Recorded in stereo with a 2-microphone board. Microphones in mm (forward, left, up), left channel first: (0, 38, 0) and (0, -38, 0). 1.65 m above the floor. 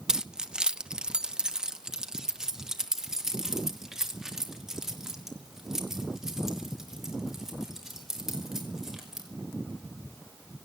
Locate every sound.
0.1 s keys jangling: 10° right (ahead or behind), 0.6 m; by 9.2 s 5° right (ahead or behind), 5.5 m